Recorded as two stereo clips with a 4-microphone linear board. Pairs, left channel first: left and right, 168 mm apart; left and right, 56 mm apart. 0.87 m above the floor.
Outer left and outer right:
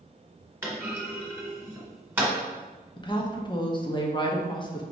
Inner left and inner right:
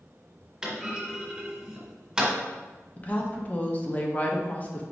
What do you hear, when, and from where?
0.6 s a clunk: 15° right (ahead or behind), 1.3 m
3.0 s a woman speaking: 30° left (ahead or behind), 0.7 m